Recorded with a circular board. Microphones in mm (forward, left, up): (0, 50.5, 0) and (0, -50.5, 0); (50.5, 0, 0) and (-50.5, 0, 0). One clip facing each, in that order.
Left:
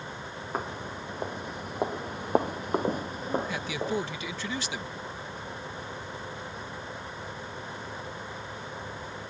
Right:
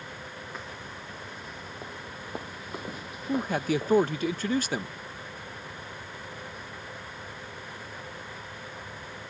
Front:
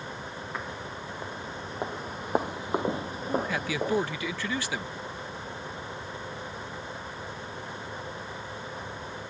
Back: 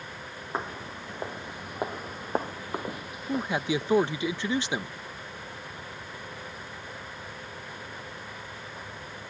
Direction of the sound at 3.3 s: 120° right.